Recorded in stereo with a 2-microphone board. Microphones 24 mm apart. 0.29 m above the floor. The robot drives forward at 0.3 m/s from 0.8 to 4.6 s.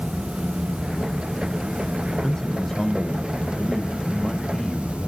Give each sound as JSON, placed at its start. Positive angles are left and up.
{"t": 2.2, "sound": "a man speaking", "side_deg": 20, "distance_m": 1.1}